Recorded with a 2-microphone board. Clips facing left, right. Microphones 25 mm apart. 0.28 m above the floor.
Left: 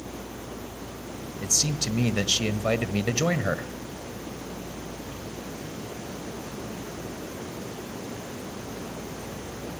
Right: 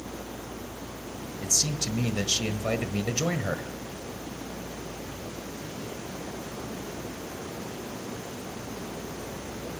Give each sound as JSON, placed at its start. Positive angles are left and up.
{"t": 1.4, "sound": "a man speaking", "side_deg": 20, "distance_m": 1.4}